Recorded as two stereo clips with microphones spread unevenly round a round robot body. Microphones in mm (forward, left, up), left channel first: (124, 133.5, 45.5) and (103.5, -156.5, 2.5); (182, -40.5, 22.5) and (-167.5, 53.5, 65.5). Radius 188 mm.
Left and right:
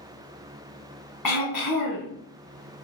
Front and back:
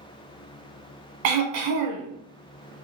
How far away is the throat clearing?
About 1.1 m.